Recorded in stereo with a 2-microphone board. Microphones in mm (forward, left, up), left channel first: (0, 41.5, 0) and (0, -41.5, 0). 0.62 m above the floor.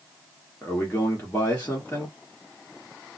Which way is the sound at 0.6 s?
20° left (ahead or behind).